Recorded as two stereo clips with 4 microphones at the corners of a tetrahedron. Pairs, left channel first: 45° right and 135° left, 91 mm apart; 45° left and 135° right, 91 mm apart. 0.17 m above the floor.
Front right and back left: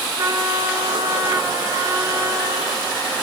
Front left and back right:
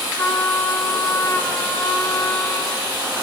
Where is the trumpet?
105° left, 2.5 m.